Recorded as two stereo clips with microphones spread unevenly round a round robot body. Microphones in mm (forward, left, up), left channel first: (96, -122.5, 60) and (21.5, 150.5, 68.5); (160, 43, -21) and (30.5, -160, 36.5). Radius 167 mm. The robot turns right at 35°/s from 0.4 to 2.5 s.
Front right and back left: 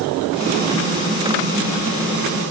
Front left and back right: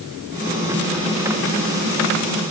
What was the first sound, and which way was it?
Only background noise.